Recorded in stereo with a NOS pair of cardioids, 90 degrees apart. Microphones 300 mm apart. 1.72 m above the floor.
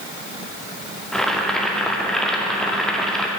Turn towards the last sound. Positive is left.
turn(degrees=0)